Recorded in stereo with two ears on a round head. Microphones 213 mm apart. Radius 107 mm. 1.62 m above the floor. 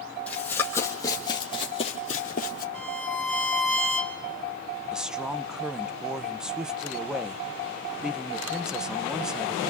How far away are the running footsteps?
About 3.5 m.